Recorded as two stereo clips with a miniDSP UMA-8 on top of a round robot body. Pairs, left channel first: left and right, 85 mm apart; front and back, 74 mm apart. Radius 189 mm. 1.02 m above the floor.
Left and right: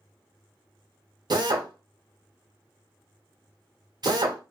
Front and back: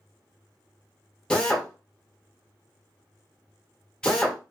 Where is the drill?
75° right, 1.2 m.